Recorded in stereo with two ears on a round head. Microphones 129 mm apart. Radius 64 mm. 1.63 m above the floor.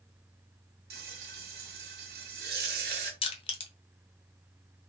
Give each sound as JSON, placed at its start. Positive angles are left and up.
{"t": 0.9, "sound": "frying", "side_deg": -75, "distance_m": 0.9}
{"t": 3.2, "sound": "crushing", "side_deg": 40, "distance_m": 0.7}